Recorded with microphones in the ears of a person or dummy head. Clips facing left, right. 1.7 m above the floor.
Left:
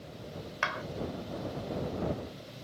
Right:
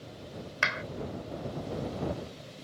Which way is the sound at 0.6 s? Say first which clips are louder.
Even; 25° right (ahead or behind).